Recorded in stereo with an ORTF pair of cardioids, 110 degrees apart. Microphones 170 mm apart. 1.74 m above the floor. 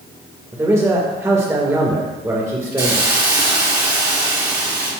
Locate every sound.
0.5 s a man speaking: 15° right, 2.5 m
2.8 s a hiss: 25° right, 4 m